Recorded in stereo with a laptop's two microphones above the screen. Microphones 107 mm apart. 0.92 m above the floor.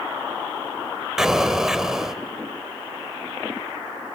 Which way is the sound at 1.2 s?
5° right (ahead or behind).